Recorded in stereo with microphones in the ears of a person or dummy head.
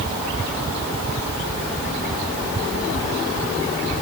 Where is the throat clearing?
I don't hear throat clearing.